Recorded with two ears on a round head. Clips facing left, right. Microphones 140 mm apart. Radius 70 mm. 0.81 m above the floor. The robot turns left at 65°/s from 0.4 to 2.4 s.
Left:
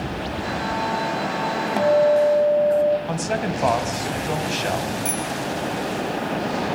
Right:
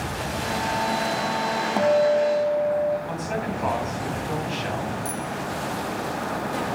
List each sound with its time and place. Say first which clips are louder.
1.8 s a guitar: left 3 dB; 175° left, 1.2 m; by 3.0 s 135° left, 1.2 m
3.1 s a man speaking: left 4 dB; 60° left (ahead or behind), 5 m
5.0 s a bicycle bell: left 3 dB; 25° left (ahead or behind), 4.5 m